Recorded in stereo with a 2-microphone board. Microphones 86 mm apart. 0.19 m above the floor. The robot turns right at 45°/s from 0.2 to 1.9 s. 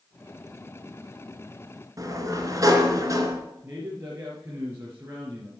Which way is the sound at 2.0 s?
40° right (ahead or behind).